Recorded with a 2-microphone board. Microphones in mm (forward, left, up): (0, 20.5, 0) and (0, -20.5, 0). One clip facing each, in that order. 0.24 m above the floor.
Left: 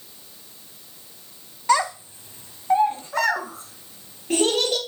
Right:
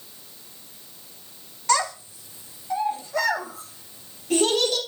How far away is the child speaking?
About 0.9 m.